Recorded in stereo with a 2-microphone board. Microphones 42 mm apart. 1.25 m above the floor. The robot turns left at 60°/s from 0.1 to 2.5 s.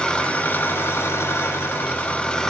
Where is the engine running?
160° left, 2.5 m; by 2.5 s 15° left, 2.5 m.